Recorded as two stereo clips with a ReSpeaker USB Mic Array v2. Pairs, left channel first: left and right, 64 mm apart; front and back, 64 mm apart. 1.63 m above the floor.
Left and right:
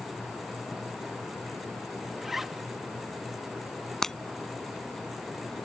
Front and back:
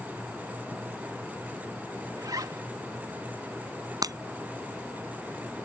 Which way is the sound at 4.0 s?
175° left.